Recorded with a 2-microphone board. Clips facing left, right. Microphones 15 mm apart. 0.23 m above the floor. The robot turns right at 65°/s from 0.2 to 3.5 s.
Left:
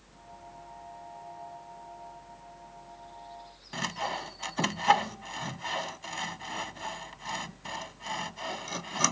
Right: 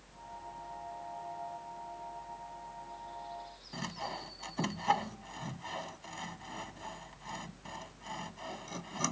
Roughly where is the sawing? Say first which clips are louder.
Left 7 dB; left.